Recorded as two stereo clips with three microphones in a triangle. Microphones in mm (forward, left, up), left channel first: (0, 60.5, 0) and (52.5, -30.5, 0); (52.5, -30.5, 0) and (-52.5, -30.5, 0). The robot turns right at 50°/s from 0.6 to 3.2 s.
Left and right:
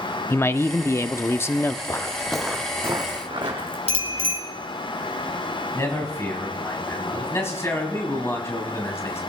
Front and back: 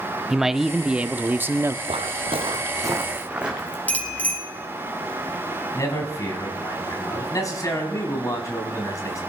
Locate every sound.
0.3 s a man speaking: 100° left, 0.6 m; by 1.8 s 160° left, 0.6 m
1.9 s footsteps: 175° left, 1.1 m; by 3.8 s 100° right, 2.5 m
3.9 s a bicycle bell: 75° right, 3.5 m
5.7 s a man speaking: 55° left, 3.5 m